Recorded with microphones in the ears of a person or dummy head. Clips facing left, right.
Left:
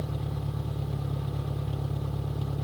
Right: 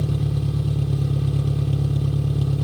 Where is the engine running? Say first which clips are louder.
Right 9 dB; 45° right (ahead or behind).